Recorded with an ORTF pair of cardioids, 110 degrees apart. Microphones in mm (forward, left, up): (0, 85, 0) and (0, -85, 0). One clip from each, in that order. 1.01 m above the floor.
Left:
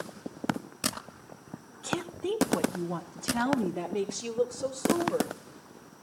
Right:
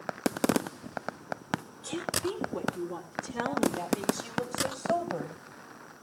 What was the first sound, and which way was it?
A woman speaking, 50° left.